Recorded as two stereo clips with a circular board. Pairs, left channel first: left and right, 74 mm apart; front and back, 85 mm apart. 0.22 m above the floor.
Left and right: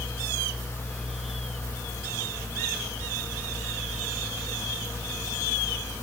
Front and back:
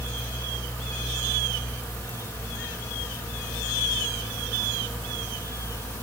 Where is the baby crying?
I don't hear a baby crying.